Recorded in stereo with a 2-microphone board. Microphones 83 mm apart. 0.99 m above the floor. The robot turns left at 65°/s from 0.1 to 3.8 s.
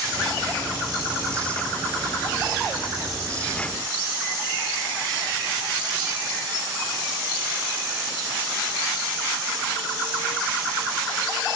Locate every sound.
Only background noise.